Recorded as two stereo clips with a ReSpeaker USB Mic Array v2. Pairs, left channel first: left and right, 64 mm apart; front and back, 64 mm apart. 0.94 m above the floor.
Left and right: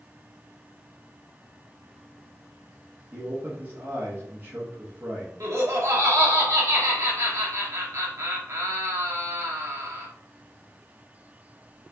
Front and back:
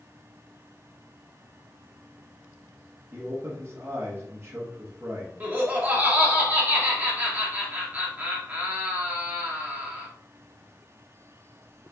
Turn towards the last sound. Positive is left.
turn(degrees=-120)